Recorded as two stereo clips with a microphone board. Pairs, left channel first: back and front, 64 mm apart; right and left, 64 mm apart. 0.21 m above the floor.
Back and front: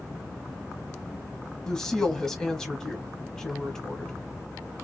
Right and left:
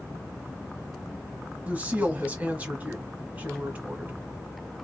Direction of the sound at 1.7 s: 110° left.